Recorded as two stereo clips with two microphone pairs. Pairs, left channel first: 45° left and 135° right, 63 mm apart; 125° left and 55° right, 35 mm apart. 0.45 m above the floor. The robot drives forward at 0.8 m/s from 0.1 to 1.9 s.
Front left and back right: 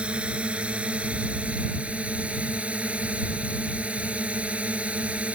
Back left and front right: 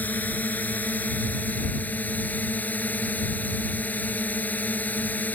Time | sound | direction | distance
0.0 | a drone | 155° left | ?